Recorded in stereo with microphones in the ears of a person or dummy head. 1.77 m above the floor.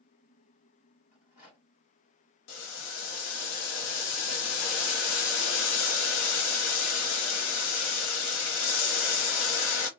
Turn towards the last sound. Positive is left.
turn(degrees=85)